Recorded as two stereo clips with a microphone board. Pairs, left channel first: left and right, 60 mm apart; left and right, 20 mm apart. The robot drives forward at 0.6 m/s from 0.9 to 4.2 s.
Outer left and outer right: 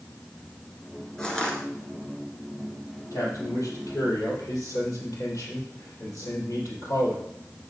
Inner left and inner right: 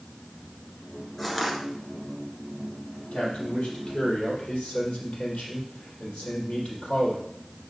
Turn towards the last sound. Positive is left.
turn(degrees=60)  # may be behind; listen again after turning